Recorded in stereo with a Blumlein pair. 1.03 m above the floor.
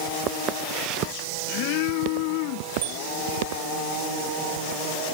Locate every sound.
0.3 s footsteps: 30° right; by 3.6 s 50° right
2.8 s a bicycle bell: 45° right